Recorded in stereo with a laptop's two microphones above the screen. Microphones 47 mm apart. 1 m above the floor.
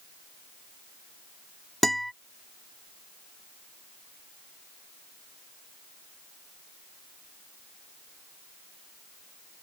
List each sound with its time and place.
1.8 s a guitar: 5° left (ahead or behind)